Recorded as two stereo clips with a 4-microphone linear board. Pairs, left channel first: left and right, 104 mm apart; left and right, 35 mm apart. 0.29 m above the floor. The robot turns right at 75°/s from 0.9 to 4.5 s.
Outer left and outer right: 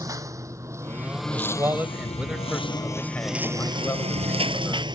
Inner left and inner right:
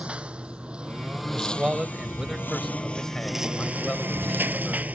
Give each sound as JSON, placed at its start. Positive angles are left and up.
{"t": 0.0, "sound": "a lawn mower", "side_deg": -35}
{"t": 1.3, "sound": "a man speaking", "side_deg": -25}